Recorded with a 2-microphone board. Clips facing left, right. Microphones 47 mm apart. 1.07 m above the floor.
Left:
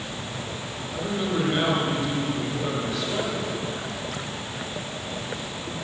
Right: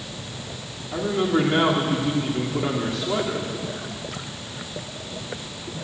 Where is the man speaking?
65° right (ahead or behind), 2.5 m.